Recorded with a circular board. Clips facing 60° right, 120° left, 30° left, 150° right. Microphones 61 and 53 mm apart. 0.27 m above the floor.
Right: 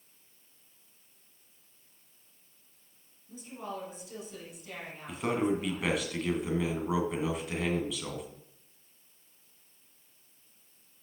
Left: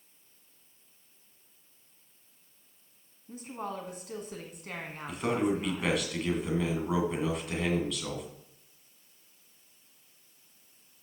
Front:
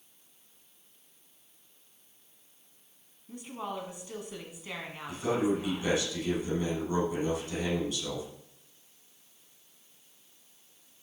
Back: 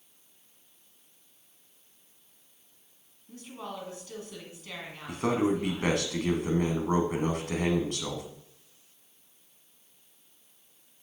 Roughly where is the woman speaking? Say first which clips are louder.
Left 3 dB, front 3 dB; left.